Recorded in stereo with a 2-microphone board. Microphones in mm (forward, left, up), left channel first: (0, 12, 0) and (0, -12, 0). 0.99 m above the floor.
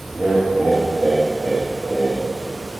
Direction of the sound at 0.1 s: 45° right (ahead or behind).